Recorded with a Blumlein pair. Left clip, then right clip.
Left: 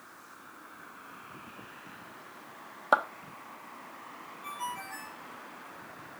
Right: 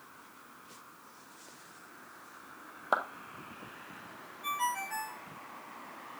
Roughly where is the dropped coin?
I don't hear a dropped coin.